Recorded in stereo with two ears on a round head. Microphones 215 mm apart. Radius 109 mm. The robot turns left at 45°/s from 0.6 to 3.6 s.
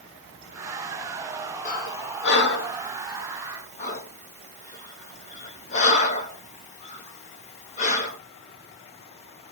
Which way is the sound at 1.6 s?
35° left (ahead or behind).